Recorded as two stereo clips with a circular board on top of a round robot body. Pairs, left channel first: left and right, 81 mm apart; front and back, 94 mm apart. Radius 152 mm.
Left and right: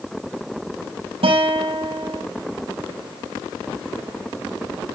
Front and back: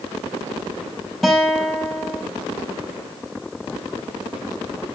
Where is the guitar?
90° right, 6 m.